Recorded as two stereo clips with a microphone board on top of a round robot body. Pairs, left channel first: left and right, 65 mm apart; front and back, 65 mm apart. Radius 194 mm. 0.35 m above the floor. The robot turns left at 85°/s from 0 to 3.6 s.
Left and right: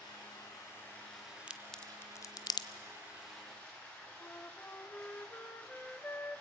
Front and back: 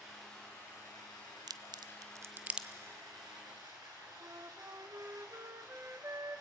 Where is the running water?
105° left, 6.5 m; by 6.4 s 160° left, 6.5 m.